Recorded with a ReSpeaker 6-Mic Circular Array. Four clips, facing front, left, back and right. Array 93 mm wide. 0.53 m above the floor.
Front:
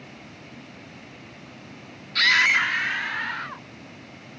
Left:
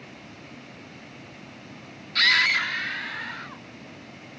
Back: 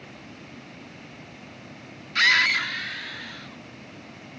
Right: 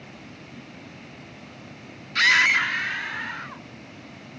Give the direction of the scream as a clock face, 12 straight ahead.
5 o'clock.